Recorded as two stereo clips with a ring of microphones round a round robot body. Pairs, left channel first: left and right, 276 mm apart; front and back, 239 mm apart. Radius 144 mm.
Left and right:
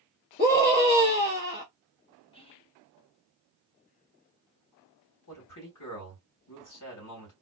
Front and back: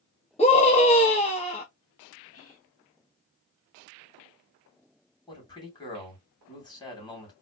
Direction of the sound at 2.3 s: 20° left.